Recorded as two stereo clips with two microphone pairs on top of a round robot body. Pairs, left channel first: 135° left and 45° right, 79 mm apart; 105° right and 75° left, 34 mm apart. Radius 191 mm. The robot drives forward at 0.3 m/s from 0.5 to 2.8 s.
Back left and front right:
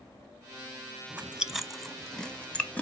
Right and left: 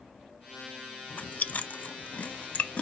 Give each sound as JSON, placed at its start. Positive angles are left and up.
{"t": 1.1, "sound": "chewing", "azimuth_deg": -105, "distance_m": 0.7}